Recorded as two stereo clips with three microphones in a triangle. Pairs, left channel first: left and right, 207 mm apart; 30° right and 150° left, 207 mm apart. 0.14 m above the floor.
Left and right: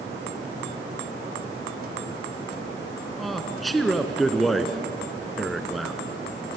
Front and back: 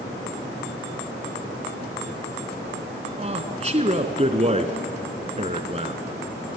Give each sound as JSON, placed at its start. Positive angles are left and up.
{"t": 3.2, "sound": "a man speaking", "azimuth_deg": 180, "distance_m": 1.5}